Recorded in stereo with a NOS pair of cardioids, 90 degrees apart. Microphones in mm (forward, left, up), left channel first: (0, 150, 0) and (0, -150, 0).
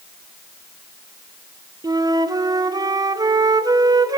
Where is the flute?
15° right, 0.6 m.